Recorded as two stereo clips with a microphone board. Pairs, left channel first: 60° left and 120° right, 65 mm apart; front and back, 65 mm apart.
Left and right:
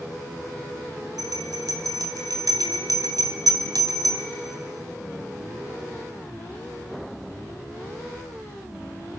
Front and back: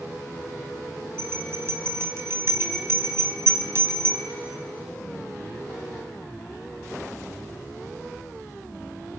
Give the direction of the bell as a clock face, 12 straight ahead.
5 o'clock.